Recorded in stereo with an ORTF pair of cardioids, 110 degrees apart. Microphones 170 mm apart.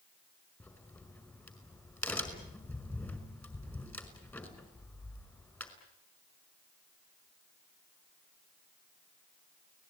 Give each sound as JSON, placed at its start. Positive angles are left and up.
{"t": 0.6, "sound": "a crack", "azimuth_deg": 15, "distance_m": 5.0}